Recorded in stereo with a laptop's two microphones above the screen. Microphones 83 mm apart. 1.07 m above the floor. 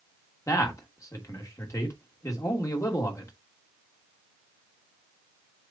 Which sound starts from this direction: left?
A man speaking, at 0.5 s.